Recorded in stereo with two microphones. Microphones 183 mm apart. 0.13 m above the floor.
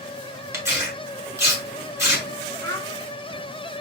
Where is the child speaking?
20° left (ahead or behind), 1.1 m.